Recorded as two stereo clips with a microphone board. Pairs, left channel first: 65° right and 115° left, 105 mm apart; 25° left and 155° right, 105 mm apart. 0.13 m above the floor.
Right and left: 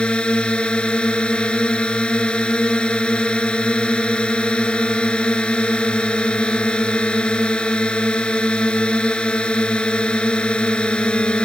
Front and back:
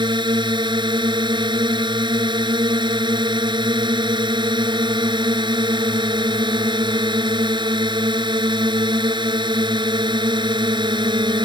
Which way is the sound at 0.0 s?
145° right.